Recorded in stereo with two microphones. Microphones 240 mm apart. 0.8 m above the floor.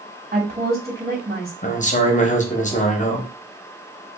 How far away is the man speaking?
About 0.9 m.